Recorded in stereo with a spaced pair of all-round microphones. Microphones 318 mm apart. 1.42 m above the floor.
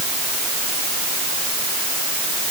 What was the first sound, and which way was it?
Only background noise.